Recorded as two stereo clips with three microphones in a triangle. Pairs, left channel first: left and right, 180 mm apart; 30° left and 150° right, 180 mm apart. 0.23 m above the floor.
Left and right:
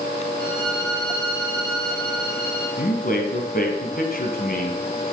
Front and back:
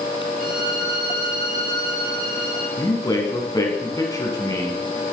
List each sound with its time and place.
0.4 s a violin: 65° left, 4 m
2.8 s a man speaking: 95° left, 2 m